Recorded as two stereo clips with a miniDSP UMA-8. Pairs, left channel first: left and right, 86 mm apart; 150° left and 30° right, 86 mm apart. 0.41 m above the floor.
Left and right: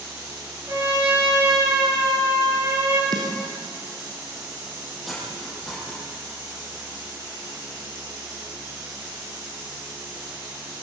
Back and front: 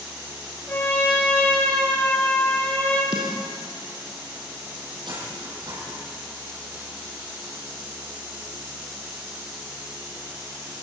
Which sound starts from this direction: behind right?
A trumpet, at 0.7 s.